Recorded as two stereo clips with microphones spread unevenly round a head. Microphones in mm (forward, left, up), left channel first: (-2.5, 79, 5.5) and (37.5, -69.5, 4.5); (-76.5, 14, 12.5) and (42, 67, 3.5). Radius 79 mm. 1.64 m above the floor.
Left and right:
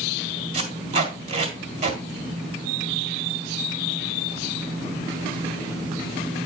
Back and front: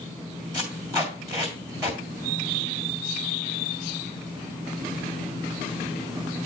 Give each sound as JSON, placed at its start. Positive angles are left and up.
{"t": 0.5, "sound": "tape being pulled", "azimuth_deg": -45, "distance_m": 1.9}